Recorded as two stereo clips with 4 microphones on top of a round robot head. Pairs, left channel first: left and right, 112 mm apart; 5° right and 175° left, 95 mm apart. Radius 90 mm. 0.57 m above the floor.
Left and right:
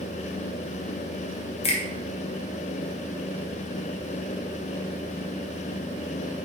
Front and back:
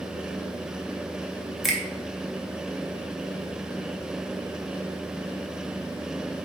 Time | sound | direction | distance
1.6 | a finger snap | 85° left | 0.7 m